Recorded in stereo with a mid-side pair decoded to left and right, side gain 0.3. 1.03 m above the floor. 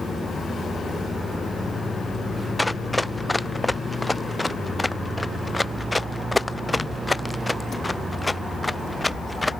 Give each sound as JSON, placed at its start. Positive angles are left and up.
{"t": 2.6, "sound": "running footsteps", "azimuth_deg": 10}